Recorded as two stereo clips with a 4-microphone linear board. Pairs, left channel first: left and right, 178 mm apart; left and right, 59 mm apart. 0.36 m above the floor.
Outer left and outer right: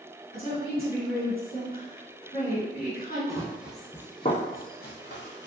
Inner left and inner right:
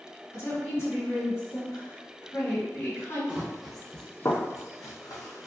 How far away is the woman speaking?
About 2.0 m.